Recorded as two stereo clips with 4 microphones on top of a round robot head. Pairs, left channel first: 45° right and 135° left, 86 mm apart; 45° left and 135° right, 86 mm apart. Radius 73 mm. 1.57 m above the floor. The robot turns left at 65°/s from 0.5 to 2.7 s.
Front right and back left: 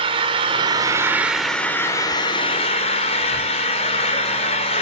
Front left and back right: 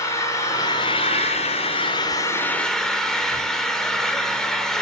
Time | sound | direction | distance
0.0 | an engine running | 105° left | 3.5 m